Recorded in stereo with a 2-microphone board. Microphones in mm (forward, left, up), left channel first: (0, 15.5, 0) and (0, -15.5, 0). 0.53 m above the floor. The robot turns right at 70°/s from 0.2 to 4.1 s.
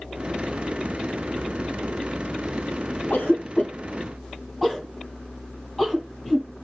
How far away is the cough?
About 3 m.